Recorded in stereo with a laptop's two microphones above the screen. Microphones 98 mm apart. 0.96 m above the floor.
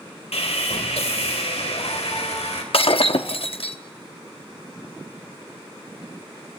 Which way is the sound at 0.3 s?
80° left.